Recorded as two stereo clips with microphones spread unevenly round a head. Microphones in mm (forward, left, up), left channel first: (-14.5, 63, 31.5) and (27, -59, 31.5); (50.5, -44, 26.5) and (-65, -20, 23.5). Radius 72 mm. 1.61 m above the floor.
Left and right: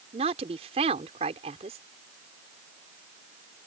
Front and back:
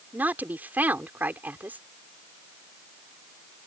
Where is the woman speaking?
115° right.